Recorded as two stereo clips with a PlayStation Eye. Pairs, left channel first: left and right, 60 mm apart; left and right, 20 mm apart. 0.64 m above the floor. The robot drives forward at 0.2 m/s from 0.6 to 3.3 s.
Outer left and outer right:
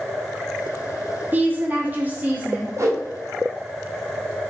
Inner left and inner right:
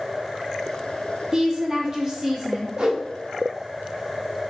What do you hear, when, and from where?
1.3 s a woman speaking: 25° right (ahead or behind), 0.8 m
2.8 s a whoosh: 55° right (ahead or behind), 0.7 m; by 3.0 s 50° right (ahead or behind), 0.7 m